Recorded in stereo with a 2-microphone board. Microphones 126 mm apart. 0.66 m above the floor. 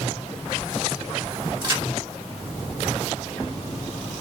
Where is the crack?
35° right (ahead or behind), 1.6 m.